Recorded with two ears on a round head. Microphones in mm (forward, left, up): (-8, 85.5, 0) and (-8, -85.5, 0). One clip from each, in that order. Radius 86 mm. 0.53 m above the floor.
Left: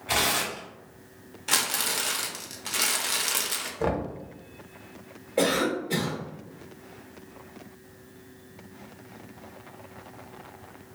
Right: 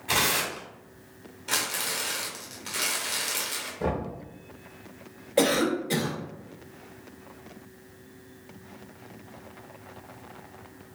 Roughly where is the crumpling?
Centre.